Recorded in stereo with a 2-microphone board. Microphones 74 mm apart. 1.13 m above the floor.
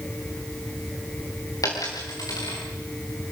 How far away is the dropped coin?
About 5.5 m.